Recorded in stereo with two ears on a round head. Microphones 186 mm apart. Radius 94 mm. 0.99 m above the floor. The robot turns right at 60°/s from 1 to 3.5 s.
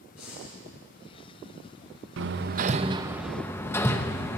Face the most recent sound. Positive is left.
turn(degrees=10)  # may be behind; listen again after turning